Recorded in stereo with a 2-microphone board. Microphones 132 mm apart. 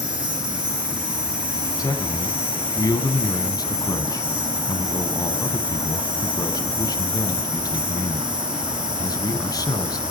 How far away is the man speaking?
About 1.6 m.